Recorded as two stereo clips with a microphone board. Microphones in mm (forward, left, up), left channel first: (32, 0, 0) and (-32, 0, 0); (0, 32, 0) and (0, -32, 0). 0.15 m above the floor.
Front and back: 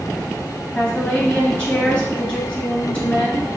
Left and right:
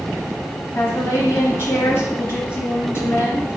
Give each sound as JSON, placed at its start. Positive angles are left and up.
{"t": 0.8, "sound": "a woman speaking", "azimuth_deg": 55, "distance_m": 1.8}